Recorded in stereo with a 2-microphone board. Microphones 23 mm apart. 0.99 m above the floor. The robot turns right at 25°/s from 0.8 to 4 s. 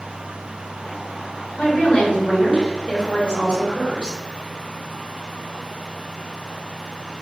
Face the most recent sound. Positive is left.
turn(degrees=145)